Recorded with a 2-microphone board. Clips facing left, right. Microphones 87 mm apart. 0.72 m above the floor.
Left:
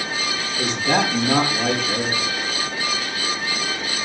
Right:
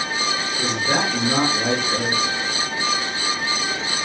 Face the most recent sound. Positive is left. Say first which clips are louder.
# left 3 dB
turn(degrees=55)  # may be behind; listen again after turning